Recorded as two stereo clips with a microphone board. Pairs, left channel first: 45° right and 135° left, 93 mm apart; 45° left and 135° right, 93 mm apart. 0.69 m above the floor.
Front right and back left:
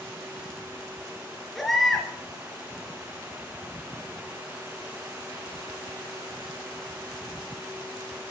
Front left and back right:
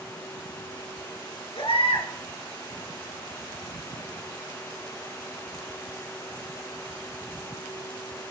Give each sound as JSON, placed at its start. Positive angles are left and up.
{"t": 1.6, "sound": "a baby crying", "azimuth_deg": 45, "distance_m": 3.0}